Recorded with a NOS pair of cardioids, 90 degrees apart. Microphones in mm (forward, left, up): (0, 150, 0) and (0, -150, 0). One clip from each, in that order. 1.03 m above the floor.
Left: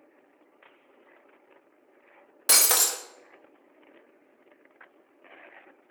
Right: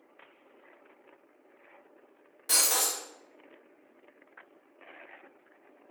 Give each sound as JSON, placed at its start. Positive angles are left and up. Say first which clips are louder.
{"t": 2.5, "sound": "breaking glass", "louder": "left 4 dB", "azimuth_deg": 60, "distance_m": 0.6}